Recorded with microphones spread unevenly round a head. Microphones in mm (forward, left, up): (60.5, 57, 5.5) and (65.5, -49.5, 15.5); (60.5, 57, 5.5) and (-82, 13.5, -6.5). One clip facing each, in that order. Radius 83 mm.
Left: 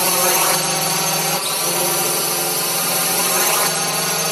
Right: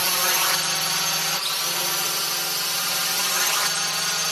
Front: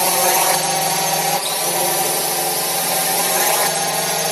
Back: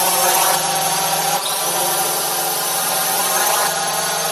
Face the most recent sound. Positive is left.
turn(degrees=85)